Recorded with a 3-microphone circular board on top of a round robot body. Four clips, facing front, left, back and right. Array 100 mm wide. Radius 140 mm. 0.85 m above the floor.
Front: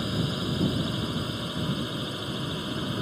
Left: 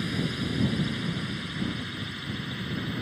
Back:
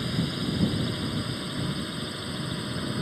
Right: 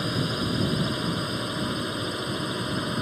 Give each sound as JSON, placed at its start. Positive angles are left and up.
{"t": 0.0, "sound": "a drone", "azimuth_deg": -80}